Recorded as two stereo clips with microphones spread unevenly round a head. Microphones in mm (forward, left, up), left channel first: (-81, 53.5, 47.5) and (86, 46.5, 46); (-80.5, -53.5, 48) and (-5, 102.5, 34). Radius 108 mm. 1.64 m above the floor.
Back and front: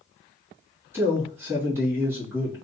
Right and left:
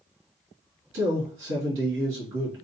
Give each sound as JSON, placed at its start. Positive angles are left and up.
{"t": 0.9, "sound": "a man speaking", "azimuth_deg": 75, "distance_m": 1.4}